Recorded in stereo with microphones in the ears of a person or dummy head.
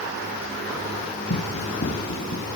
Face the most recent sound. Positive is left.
turn(degrees=55)  # may be behind; listen again after turning